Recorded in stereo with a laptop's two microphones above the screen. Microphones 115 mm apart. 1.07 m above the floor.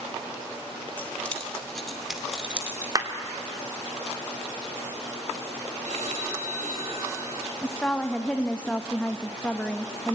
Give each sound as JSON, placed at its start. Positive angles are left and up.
{"t": 1.0, "sound": "keys jangling", "side_deg": 15, "distance_m": 1.9}
{"t": 3.0, "sound": "a clap", "side_deg": -30, "distance_m": 2.5}
{"t": 5.8, "sound": "a phone ringing", "side_deg": -90, "distance_m": 5.5}
{"t": 7.6, "sound": "a woman speaking", "side_deg": 10, "distance_m": 0.8}